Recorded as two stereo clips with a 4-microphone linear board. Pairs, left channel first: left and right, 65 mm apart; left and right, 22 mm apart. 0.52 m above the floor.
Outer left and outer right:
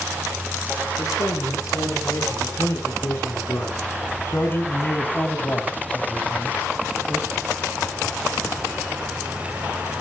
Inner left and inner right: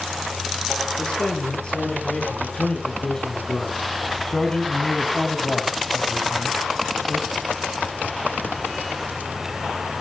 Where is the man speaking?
55° left (ahead or behind), 7.5 m; by 7.3 s 30° right (ahead or behind), 2.5 m.